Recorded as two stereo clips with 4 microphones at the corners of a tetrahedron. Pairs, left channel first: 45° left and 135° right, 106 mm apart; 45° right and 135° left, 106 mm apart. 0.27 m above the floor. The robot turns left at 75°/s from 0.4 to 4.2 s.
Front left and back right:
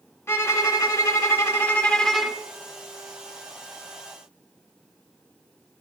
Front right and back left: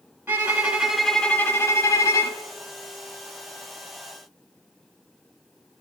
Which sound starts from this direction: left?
A violin, at 0.3 s.